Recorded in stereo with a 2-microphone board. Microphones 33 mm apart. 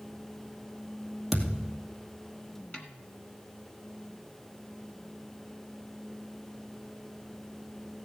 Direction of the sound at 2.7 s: 35° left (ahead or behind).